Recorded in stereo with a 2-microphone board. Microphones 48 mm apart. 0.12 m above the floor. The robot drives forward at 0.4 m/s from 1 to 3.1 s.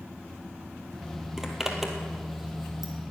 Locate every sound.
1.4 s a zipper: 10° right (ahead or behind), 1.6 m; by 2.9 s 5° right (ahead or behind), 2 m